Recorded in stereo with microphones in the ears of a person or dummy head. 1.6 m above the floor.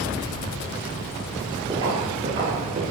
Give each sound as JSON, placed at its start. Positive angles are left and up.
{"t": 1.7, "sound": "footsteps", "side_deg": -20, "distance_m": 1.9}